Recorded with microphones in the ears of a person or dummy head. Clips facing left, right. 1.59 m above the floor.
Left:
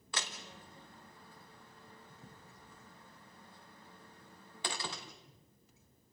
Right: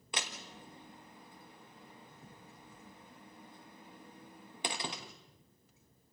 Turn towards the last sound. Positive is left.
turn(degrees=-15)  # may be behind; listen again after turning